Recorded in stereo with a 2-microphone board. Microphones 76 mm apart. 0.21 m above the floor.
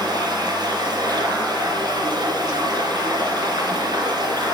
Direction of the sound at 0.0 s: 65° right (ahead or behind).